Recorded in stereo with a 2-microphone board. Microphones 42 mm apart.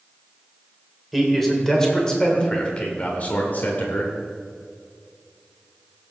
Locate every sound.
1.1 s a man speaking: 5° left (ahead or behind), 2.5 m; by 4.1 s 55° left (ahead or behind), 2 m